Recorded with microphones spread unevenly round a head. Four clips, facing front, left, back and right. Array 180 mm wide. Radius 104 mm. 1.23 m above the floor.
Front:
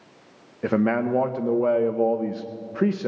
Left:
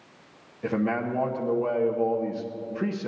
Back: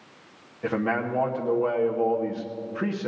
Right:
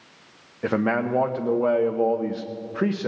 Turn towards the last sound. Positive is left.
turn(degrees=-5)